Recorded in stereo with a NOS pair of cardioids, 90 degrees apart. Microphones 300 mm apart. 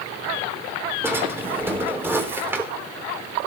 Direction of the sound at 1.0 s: 5° right.